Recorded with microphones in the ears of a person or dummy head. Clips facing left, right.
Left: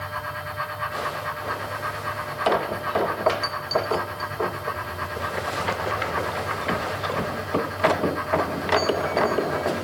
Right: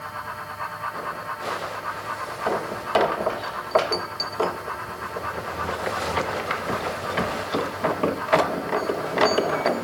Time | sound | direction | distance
0.0 | a fan | 75° left (ahead or behind) | 8 m